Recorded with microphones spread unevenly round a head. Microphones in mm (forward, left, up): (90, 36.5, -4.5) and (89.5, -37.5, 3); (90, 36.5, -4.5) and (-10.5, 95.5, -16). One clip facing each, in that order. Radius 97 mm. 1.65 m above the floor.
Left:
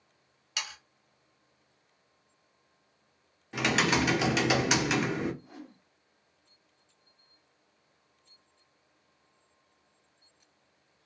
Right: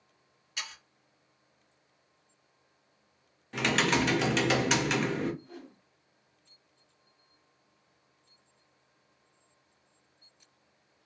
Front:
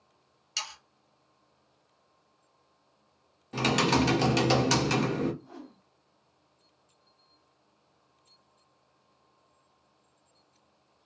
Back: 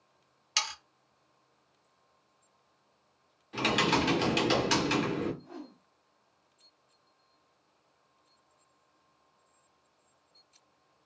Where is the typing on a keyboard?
Straight ahead, 0.8 m.